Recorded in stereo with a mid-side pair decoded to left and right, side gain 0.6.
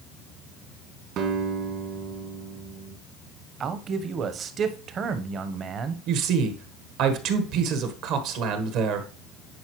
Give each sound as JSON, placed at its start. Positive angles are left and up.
{"t": 1.2, "sound": "a guitar", "azimuth_deg": -65, "distance_m": 1.8}
{"t": 3.6, "sound": "a man speaking", "azimuth_deg": -45, "distance_m": 1.0}
{"t": 6.1, "sound": "a man speaking", "azimuth_deg": -70, "distance_m": 1.4}